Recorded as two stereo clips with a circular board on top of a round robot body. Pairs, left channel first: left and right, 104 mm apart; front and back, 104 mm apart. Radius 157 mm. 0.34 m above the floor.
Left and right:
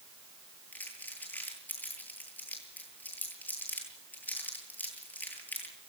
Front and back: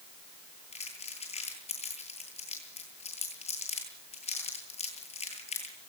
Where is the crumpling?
15° left, 10 m.